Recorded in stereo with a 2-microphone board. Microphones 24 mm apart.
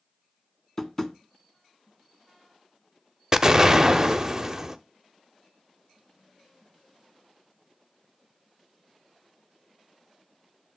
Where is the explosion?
20° right (ahead or behind), 0.5 m.